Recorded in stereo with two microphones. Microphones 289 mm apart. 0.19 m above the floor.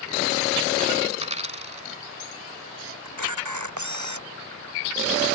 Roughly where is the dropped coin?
Right.